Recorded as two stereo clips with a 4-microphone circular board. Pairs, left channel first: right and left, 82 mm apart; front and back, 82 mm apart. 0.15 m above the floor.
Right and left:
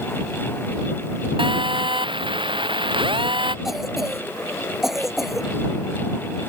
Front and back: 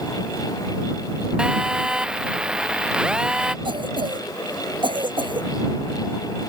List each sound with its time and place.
1.4 s a phone buzzing: 100° left
3.6 s a cough: 175° left